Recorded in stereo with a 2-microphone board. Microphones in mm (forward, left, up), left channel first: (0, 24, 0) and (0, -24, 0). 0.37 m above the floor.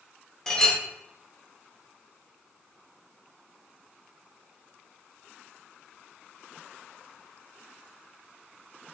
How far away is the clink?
About 0.9 m.